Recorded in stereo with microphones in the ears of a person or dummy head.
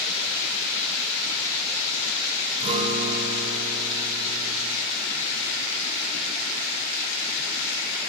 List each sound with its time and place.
2.6 s a guitar: 30° right (ahead or behind), 2.5 m